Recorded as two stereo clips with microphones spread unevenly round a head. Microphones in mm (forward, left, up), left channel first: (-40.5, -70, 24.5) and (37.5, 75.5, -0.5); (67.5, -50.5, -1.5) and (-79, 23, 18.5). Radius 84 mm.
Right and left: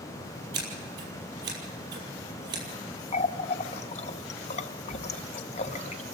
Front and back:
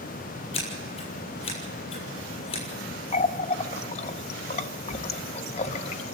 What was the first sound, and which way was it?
Scissors, 35° left.